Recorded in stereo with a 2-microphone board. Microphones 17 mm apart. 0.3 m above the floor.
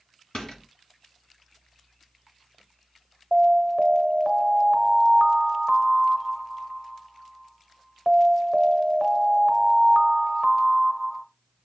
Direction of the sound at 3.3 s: 25° right (ahead or behind).